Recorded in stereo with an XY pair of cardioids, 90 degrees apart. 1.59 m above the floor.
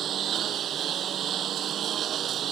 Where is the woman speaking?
No woman speaking in this recording.